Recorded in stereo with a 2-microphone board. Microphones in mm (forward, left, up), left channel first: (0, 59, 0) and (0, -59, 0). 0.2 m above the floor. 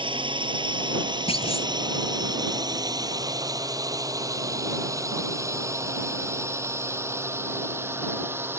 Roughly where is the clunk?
Left.